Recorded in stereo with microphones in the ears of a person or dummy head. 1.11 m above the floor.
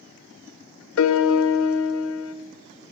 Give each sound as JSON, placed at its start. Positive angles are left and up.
{"t": 1.0, "sound": "a piano", "side_deg": 80, "distance_m": 0.6}